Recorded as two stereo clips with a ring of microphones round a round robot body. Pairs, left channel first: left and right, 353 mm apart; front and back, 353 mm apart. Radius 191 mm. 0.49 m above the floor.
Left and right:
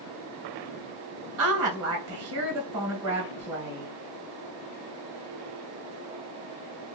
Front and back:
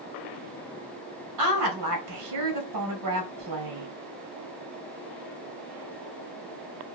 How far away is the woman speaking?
About 2 m.